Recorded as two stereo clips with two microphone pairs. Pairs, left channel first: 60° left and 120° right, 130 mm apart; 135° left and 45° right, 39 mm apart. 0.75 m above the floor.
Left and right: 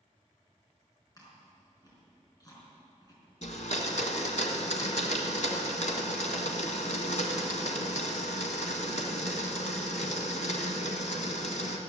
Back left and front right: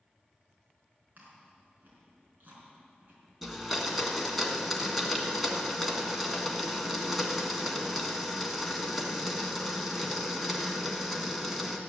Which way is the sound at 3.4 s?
45° left.